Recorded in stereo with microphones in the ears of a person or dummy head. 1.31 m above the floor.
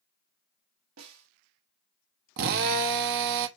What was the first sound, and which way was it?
A snare drum, 85° right.